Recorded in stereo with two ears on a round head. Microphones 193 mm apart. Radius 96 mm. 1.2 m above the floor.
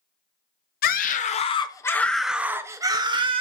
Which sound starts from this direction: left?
A scream, at 0.8 s.